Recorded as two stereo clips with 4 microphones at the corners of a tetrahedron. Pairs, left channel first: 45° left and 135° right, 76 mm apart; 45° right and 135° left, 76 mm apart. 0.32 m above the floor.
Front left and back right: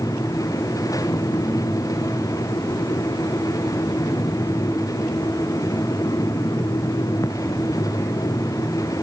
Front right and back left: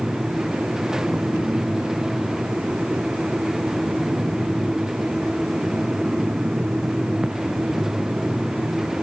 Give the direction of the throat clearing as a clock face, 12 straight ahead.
No throat clearing in this recording.